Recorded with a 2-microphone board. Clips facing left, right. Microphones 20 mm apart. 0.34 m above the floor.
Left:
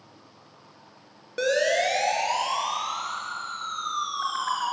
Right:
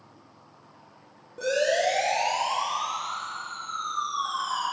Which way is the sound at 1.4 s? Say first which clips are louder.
Left 1 dB; 75° left (ahead or behind).